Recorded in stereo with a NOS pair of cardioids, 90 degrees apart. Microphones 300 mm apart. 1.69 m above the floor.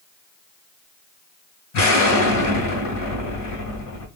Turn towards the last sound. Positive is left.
turn(degrees=60)